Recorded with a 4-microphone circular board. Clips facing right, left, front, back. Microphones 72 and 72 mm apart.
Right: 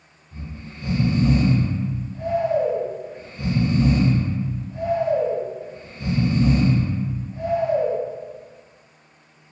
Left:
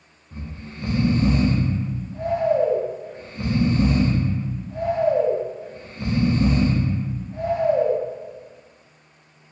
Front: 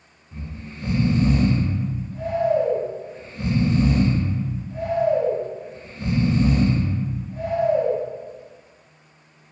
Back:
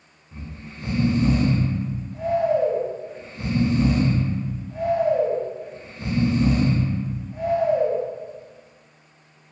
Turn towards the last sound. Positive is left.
turn(degrees=95)